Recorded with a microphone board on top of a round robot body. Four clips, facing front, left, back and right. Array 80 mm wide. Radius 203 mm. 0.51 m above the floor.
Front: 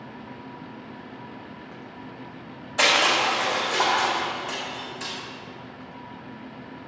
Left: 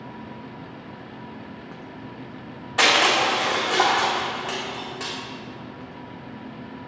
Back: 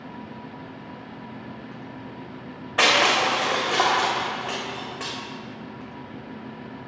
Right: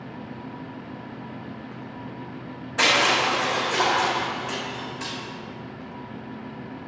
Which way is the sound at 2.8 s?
165° left.